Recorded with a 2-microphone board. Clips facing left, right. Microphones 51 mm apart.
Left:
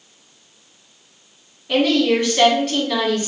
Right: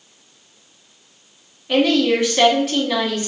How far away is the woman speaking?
About 1.0 m.